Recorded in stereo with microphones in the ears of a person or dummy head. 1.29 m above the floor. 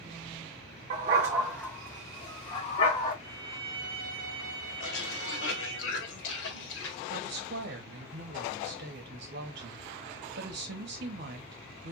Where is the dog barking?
25° right (ahead or behind), 1.0 m; by 3.1 s 40° left (ahead or behind), 2.0 m.